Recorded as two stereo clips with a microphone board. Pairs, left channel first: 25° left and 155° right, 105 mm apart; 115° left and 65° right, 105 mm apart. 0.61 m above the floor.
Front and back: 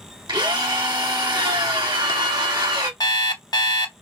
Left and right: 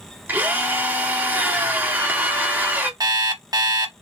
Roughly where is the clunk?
No clunk in this recording.